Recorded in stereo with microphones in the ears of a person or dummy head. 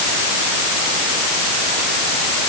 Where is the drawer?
No drawer in this recording.